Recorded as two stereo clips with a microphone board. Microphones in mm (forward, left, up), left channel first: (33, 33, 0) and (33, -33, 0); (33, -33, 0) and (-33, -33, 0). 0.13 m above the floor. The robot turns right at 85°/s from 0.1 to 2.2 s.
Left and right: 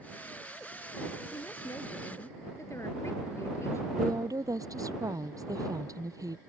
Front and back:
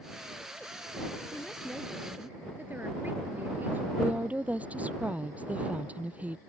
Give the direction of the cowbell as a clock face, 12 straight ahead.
No cowbell in this recording.